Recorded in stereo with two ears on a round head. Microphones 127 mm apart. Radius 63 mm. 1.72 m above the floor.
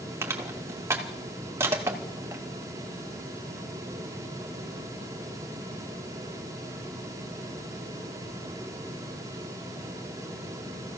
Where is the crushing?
20° right (ahead or behind), 2.5 m.